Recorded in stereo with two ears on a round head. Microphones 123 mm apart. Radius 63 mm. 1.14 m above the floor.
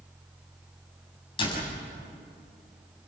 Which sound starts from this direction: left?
A door slam, at 1.4 s.